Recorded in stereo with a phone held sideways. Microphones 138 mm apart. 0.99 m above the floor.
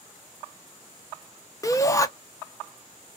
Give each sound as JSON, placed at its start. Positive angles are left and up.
{"t": 1.6, "sound": "a shout", "side_deg": 25, "distance_m": 0.6}